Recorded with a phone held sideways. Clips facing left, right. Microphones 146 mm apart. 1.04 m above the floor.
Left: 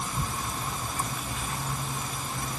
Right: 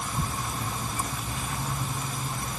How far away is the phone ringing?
No phone ringing in this recording.